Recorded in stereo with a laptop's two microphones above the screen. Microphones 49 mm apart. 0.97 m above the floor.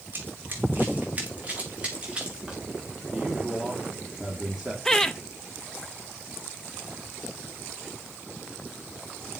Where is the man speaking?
15° right (ahead or behind), 3 m.